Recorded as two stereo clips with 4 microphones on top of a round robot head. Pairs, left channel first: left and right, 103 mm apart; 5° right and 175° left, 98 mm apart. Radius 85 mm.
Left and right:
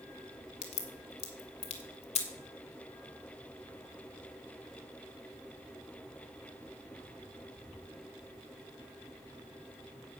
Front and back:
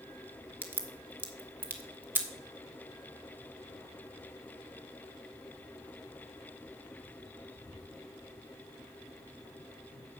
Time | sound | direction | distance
0.6 | a crack | 105° left | 1.7 m